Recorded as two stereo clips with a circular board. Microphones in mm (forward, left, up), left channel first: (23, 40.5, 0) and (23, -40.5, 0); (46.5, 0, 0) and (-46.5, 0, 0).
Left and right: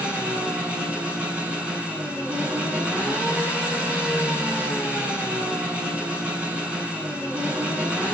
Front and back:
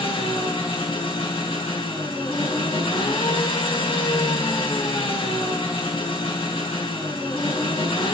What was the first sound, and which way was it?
An engine running, 15° right.